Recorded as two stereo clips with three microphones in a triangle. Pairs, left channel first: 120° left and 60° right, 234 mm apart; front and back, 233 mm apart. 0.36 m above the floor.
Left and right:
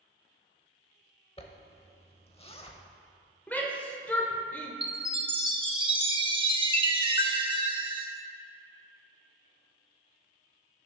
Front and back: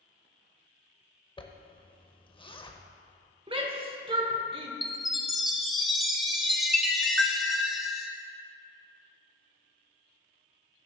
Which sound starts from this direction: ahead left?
A zipper, at 1.4 s.